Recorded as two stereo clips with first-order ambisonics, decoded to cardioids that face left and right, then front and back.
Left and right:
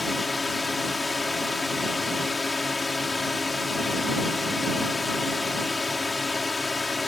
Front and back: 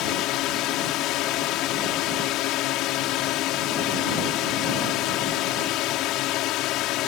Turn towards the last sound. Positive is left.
turn(degrees=15)